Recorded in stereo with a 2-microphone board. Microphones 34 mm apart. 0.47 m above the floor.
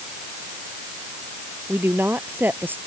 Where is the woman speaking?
75° right (ahead or behind); by 2.8 s 70° right (ahead or behind).